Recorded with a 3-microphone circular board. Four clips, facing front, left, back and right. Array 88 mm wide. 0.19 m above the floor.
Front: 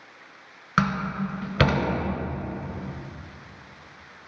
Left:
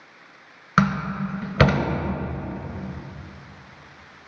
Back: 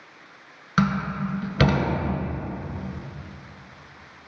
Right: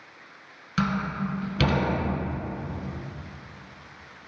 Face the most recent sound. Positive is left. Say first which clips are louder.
# left 5 dB, back 1 dB
turn(degrees=70)